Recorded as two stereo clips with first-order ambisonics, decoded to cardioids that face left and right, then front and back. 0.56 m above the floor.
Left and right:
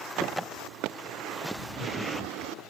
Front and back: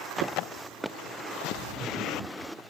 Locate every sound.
1.5 s laughter: 165° right, 1.3 m; by 2.6 s 165° left, 1.0 m